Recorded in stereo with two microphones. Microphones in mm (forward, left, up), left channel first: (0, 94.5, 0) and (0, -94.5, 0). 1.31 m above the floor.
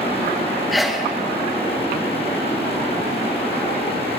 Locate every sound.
0.7 s a sneeze: centre (ahead or behind), 1.0 m